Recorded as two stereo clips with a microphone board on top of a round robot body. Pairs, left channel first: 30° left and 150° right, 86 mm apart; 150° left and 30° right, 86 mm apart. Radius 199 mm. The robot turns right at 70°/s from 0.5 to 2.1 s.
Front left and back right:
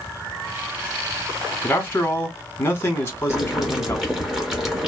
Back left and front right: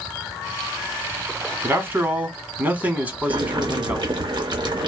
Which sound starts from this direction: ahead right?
Boiling, at 3.3 s.